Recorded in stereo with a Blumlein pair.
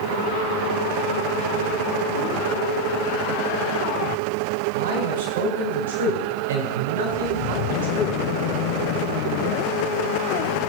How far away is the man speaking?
About 4 m.